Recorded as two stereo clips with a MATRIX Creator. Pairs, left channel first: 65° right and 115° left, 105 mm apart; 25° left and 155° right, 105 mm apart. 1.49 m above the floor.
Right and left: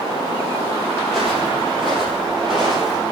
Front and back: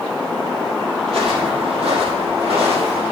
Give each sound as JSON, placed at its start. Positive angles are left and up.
{"t": 1.0, "sound": "footsteps", "azimuth_deg": -155, "distance_m": 3.0}